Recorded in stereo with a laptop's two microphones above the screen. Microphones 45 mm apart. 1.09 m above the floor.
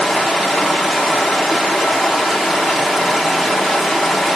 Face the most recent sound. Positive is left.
turn(degrees=0)  # may be behind; listen again after turning